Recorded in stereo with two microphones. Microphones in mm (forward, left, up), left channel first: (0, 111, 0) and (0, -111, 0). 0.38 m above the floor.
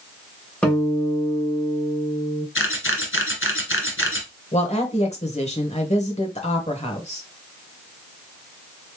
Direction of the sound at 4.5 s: 30° left (ahead or behind).